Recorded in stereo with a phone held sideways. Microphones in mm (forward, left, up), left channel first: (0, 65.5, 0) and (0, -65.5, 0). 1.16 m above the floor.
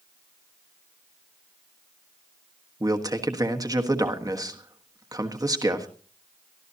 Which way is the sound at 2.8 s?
25° right (ahead or behind).